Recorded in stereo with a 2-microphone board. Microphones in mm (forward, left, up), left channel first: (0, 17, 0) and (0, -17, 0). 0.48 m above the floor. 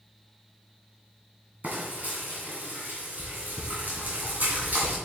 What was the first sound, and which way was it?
Frying, 45° right (ahead or behind).